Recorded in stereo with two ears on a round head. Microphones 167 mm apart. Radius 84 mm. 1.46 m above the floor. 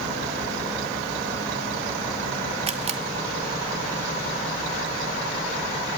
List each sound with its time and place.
2.7 s a camera shutter: 35° right (ahead or behind), 1.4 m